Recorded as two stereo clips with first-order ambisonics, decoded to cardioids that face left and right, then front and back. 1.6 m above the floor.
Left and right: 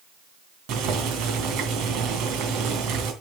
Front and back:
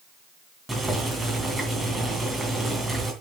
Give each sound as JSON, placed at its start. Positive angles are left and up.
{"t": 0.7, "sound": "boiling", "azimuth_deg": -100, "distance_m": 2.5}